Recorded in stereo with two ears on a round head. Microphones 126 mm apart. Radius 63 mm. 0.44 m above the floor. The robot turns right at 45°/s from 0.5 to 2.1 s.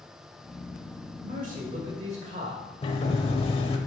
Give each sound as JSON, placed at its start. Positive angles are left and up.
{"t": 1.2, "sound": "a man speaking", "azimuth_deg": -100, "distance_m": 1.3}
{"t": 2.8, "sound": "a sliding door", "side_deg": 40, "distance_m": 0.9}